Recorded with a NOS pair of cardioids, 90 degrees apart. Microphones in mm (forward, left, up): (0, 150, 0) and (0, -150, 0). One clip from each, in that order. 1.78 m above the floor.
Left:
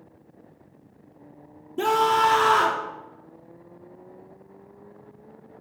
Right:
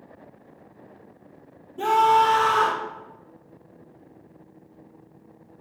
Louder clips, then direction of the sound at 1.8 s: Right 2 dB; 65° left.